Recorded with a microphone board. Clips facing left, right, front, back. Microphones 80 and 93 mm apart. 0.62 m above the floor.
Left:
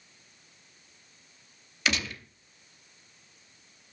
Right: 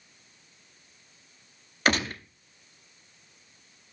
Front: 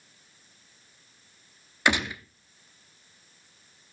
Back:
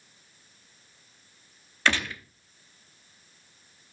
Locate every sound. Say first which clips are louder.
1.9 s a gunshot: right 5 dB, front 1 dB; 65° right, 0.8 m